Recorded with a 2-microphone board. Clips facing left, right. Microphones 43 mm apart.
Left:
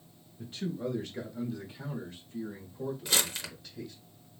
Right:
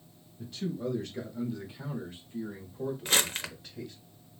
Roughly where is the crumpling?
Right.